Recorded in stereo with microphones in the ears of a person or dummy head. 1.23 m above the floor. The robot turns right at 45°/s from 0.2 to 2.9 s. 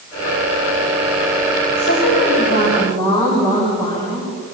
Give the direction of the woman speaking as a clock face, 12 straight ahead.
9 o'clock.